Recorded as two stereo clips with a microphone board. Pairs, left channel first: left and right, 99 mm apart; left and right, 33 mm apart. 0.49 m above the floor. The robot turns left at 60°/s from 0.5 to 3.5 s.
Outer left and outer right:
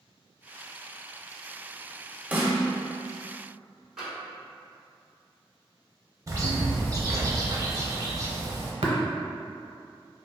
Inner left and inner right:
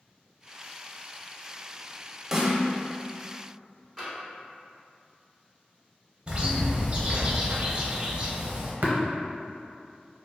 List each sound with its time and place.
2.3 s a snare drum: 15° right (ahead or behind), 0.5 m; by 2.6 s 35° right (ahead or behind), 0.5 m
4.0 s tapping: 5° right (ahead or behind), 1.3 m
6.3 s a bird: 35° right (ahead or behind), 0.5 m
8.8 s tapping: 85° right, 0.7 m